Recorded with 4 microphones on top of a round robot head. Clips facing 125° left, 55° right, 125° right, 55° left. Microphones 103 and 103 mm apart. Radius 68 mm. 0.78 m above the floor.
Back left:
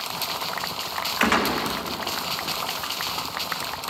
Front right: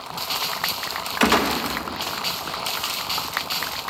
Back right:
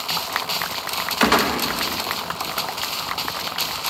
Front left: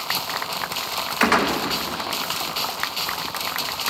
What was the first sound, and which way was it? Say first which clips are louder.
A gunshot: front right 3 dB, back right 1 dB; 60° right.